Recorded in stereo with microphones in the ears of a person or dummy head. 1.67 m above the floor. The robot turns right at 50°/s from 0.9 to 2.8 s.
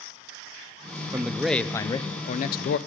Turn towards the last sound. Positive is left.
turn(degrees=65)